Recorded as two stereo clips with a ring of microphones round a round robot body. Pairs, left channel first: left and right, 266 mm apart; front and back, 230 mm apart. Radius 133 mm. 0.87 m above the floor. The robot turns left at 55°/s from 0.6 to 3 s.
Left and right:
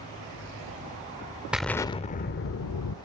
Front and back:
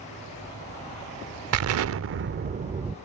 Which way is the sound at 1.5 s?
175° right.